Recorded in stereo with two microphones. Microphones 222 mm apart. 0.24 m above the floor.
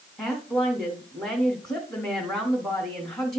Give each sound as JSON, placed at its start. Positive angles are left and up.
{"t": 0.2, "sound": "a woman speaking", "side_deg": 5, "distance_m": 1.6}